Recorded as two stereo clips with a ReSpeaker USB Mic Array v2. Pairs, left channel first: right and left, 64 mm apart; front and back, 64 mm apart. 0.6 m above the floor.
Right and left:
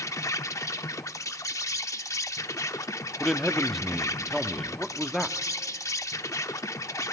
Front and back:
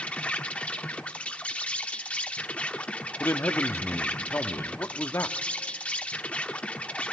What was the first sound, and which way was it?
An insect, 65° right.